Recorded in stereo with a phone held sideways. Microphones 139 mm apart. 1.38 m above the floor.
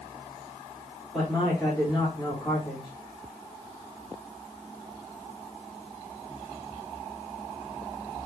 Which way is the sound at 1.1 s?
Centre (ahead or behind).